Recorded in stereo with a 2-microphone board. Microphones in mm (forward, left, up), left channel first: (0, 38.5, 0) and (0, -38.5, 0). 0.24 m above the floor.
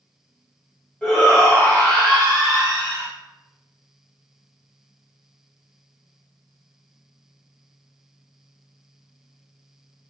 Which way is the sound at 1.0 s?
10° left (ahead or behind).